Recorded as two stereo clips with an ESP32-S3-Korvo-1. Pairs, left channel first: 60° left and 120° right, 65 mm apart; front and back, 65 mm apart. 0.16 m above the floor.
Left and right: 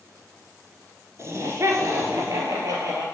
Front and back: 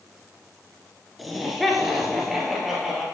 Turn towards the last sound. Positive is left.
turn(degrees=-90)